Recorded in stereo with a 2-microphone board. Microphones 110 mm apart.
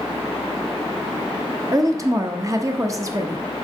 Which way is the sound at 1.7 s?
30° right (ahead or behind).